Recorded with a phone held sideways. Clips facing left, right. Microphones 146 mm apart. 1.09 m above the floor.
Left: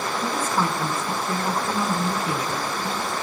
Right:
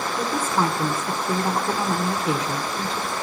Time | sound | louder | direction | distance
0.2 | a woman speaking | right 2 dB | 25° right (ahead or behind) | 1.0 m